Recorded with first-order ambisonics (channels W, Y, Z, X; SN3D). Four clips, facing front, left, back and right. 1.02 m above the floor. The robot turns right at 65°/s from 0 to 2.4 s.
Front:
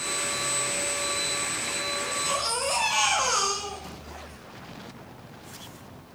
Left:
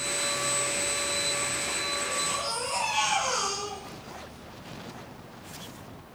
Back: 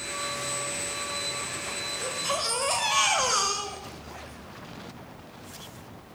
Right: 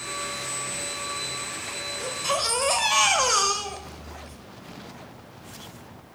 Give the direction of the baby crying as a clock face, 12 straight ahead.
4 o'clock.